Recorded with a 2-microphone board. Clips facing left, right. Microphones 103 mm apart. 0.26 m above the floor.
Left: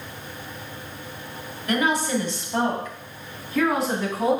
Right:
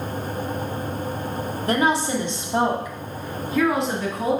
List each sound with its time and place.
1.7 s a woman speaking: 35° right (ahead or behind), 1.2 m; by 4.4 s 5° left (ahead or behind), 2.5 m